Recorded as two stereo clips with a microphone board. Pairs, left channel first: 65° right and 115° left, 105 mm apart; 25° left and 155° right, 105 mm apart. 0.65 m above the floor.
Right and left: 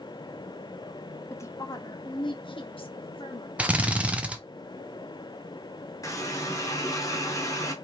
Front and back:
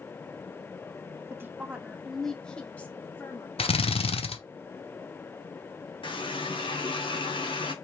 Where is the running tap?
10° right, 1.1 m.